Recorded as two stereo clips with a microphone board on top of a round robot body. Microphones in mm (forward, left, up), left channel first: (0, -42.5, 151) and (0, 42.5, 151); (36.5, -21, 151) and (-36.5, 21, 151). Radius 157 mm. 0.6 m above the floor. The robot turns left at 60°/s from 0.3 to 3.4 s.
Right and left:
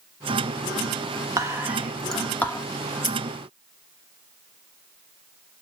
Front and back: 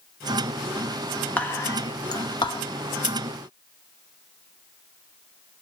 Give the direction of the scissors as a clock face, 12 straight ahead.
5 o'clock.